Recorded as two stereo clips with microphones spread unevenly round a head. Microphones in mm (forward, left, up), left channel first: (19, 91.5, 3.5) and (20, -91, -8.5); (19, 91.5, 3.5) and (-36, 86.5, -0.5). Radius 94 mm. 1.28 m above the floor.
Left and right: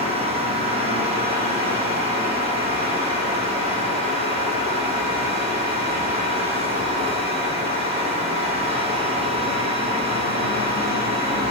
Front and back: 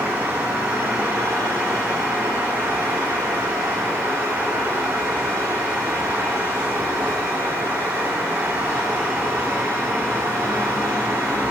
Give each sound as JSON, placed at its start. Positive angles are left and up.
{"t": 0.0, "sound": "a fan", "azimuth_deg": -115, "distance_m": 1.0}